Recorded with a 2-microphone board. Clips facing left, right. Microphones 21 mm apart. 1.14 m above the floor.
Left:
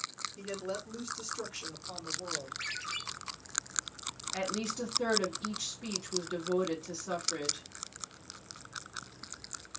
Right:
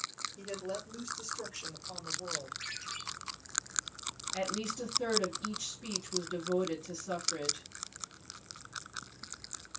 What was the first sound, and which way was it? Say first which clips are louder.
A woman speaking: left 3 dB; 75° left (ahead or behind).